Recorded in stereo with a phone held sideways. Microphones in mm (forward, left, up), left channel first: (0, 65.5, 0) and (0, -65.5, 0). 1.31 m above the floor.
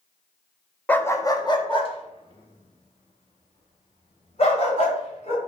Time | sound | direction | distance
0.9 | a dog barking | 10° left (ahead or behind) | 0.7 m